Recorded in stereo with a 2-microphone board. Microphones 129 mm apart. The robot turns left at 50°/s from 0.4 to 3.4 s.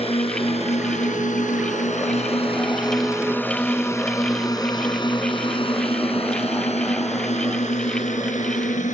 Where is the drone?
50° left (ahead or behind); by 8.9 s 70° left (ahead or behind).